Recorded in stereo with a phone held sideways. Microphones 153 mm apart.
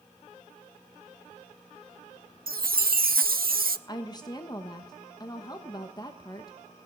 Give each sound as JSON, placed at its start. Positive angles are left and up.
{"t": 2.5, "sound": "a chime", "side_deg": -90, "distance_m": 0.5}
{"t": 3.9, "sound": "a woman speaking", "side_deg": 30, "distance_m": 1.0}